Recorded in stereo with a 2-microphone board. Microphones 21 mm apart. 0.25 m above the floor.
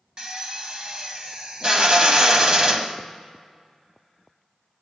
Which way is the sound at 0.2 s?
40° right (ahead or behind).